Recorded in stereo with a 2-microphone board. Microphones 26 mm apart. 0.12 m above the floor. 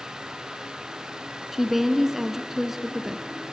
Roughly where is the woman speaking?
Centre.